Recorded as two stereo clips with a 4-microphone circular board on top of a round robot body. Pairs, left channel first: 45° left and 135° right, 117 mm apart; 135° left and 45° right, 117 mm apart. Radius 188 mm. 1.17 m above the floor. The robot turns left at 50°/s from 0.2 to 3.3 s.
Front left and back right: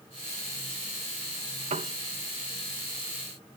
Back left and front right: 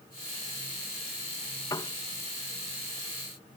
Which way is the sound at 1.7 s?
165° right.